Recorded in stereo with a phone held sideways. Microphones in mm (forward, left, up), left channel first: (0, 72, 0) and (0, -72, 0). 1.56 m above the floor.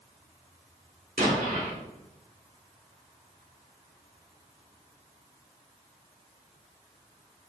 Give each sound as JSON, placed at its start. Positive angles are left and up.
{"t": 1.2, "sound": "an explosion", "side_deg": -75, "distance_m": 1.1}